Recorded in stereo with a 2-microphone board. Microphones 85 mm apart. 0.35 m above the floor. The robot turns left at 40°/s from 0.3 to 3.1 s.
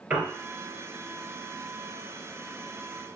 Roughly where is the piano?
Right.